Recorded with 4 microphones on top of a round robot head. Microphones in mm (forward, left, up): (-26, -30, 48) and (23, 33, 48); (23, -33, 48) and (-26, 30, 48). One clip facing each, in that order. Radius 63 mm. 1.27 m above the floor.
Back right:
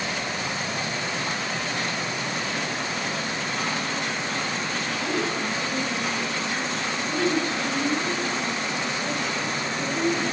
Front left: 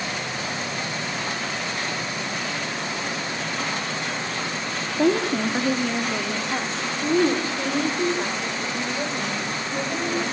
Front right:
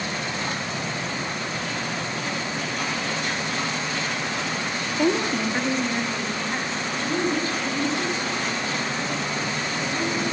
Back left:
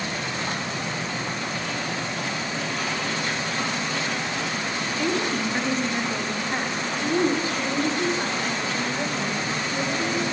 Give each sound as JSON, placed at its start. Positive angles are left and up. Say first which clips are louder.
{"t": 5.0, "sound": "a woman speaking", "louder": "front left 9 dB, front right 4 dB", "azimuth_deg": 15, "distance_m": 2.5}